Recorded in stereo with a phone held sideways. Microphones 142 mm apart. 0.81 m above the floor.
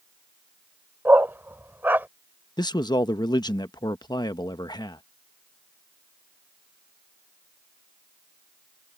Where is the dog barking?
15° right (ahead or behind).